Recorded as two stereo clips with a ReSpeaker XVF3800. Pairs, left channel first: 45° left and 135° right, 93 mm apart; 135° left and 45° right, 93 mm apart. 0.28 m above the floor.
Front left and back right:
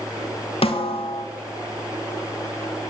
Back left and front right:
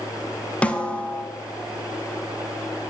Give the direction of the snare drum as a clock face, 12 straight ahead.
10 o'clock.